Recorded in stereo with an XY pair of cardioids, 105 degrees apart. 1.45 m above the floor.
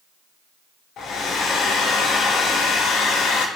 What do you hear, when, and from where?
1.0 s a hair dryer: 70° left, 0.7 m